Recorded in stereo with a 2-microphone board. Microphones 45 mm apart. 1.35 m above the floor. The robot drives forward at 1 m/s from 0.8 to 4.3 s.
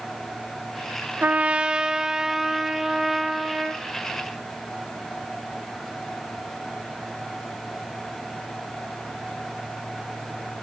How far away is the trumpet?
About 0.6 m.